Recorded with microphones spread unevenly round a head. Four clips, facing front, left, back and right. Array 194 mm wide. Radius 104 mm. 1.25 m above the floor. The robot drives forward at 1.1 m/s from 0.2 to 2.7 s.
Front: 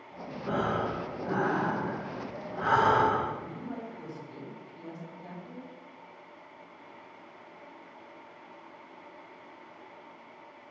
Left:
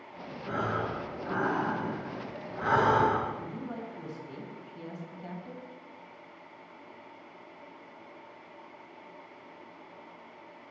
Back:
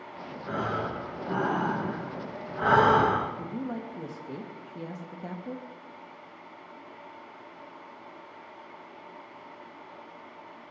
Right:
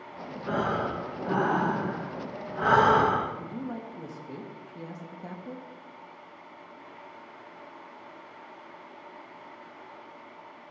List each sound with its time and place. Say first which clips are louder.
0.5 s breathing: right 4 dB, front 1 dB; 60° right, 1.9 m; by 3.3 s 135° right, 2 m
3.4 s a woman speaking: right 2 dB, back 4 dB; 160° right, 2.5 m